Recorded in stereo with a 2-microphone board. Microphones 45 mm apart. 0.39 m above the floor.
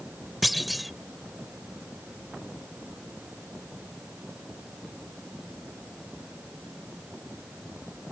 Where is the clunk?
Centre (ahead or behind).